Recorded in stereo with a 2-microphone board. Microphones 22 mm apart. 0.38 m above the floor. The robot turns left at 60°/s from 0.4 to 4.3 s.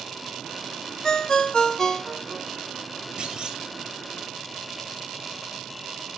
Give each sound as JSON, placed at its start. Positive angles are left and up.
{"t": 1.0, "sound": "a ringtone", "azimuth_deg": 90, "distance_m": 0.7}
{"t": 3.2, "sound": "a clunk", "side_deg": -50, "distance_m": 2.0}